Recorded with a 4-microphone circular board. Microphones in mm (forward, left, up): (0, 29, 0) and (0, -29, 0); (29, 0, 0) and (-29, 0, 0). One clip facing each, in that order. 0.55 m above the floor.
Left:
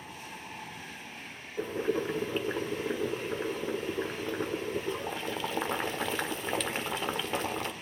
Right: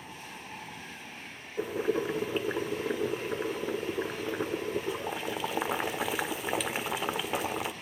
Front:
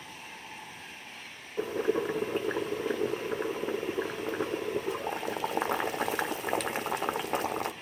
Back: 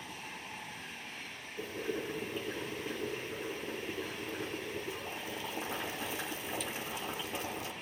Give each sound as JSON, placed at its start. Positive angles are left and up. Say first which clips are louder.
{"t": 1.6, "sound": "boiling", "louder": "right 1 dB, front 9 dB", "azimuth_deg": -10, "distance_m": 1.0}